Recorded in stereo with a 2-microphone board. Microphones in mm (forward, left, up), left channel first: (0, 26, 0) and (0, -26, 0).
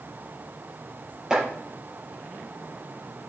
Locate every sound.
1.3 s chopping: 10° right (ahead or behind), 6 m